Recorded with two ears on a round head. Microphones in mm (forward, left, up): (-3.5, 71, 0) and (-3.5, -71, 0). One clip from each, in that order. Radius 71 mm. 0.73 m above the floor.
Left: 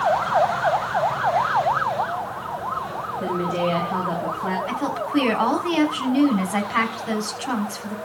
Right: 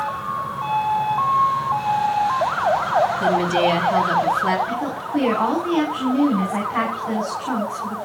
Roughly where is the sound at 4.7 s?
Left.